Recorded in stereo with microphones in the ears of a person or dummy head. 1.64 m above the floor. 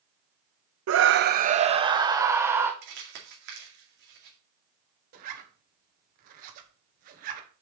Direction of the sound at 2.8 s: 60° right (ahead or behind).